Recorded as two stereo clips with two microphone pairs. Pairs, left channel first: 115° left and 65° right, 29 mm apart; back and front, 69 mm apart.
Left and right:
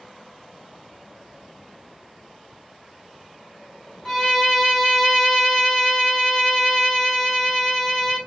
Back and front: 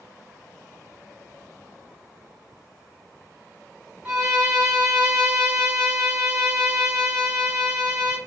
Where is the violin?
60° left, 1.1 m.